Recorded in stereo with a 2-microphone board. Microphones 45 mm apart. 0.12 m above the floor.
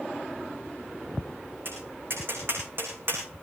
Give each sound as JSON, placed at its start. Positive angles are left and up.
{"t": 1.6, "sound": "tapping", "side_deg": -50, "distance_m": 7.0}